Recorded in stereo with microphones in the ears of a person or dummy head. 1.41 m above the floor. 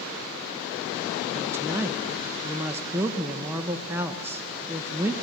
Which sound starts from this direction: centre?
A woman speaking, at 1.4 s.